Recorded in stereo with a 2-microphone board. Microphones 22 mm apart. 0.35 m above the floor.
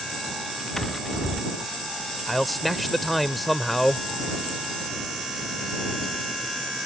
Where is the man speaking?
Centre (ahead or behind).